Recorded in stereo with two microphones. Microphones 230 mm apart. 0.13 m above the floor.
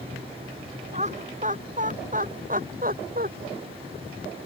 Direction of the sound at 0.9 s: 30° right (ahead or behind).